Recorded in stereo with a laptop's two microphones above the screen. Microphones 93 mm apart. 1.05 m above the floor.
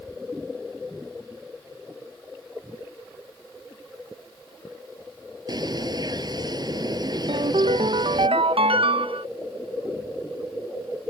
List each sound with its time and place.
5.5 s a bird: 45° right (ahead or behind)
7.3 s a ringtone: 75° right (ahead or behind)